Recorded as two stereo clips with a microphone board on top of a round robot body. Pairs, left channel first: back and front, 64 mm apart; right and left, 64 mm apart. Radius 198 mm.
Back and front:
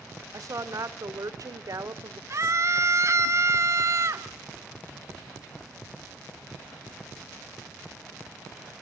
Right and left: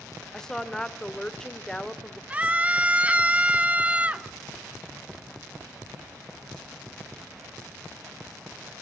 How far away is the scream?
About 1.9 m.